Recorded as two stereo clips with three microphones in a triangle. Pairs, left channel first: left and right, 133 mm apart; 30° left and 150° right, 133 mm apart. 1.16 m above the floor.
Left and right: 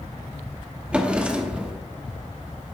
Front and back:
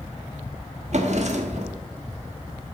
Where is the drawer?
170° right, 1.1 m.